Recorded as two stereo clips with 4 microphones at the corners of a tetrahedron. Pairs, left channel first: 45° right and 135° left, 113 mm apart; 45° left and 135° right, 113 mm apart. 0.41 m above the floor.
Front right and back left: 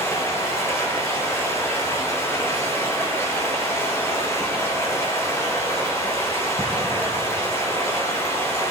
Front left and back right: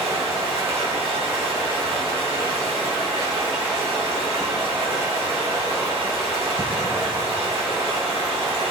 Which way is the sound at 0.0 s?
110° right.